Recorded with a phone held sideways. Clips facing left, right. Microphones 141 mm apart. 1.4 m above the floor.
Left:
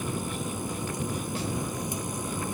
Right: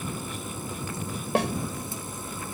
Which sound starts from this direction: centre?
A machine running, at 0.0 s.